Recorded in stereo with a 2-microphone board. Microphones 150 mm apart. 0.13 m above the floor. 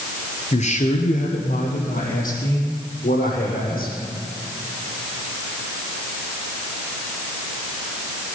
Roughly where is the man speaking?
Left.